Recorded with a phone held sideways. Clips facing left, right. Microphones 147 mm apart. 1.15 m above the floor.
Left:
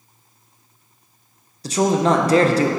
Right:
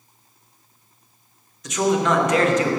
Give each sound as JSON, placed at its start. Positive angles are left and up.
{"t": 1.6, "sound": "a man speaking", "side_deg": 35, "distance_m": 0.5}